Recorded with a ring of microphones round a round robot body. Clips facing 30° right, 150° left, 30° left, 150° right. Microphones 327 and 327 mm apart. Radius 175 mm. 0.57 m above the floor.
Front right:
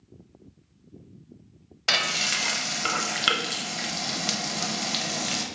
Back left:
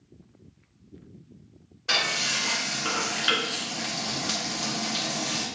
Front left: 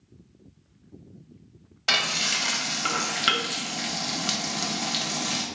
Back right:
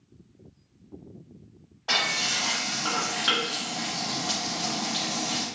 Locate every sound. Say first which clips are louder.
1.9 s frying: even, even; 20° right, 0.9 m